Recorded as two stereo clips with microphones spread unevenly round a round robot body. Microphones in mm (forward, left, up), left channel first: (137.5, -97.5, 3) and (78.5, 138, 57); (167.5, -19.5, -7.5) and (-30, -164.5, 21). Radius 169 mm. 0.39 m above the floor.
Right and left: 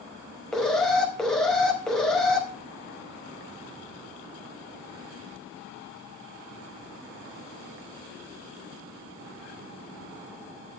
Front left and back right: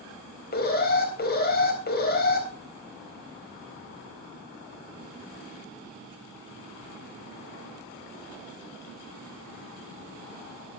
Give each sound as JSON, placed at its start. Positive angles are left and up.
{"t": 0.5, "sound": "an alarm", "azimuth_deg": 5, "distance_m": 3.5}